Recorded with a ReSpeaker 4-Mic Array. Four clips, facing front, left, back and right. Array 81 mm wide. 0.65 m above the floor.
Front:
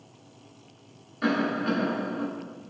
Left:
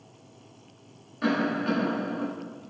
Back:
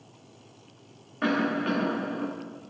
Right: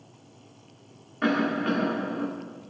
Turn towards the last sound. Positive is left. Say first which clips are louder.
# right 1 dB, even
turn(degrees=-140)